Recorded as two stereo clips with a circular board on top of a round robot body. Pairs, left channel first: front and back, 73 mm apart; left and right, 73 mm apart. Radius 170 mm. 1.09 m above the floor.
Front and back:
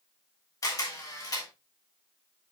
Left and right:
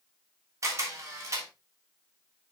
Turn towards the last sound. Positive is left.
turn(degrees=-40)